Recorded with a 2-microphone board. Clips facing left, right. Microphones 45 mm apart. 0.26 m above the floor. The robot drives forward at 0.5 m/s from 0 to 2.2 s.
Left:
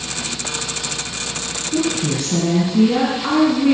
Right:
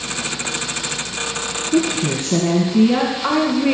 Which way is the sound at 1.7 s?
25° right (ahead or behind).